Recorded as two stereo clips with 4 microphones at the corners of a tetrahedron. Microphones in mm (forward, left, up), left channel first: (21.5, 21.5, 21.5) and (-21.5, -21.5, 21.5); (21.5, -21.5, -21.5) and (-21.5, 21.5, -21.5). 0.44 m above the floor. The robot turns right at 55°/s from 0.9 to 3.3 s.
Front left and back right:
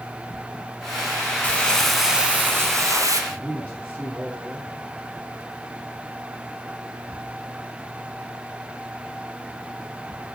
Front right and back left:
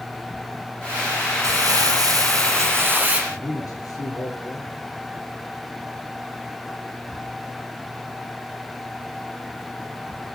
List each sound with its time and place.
1.4 s crumpling: 110° left, 3 m; by 3.2 s 155° right, 3 m
3.3 s a man speaking: 25° right, 8 m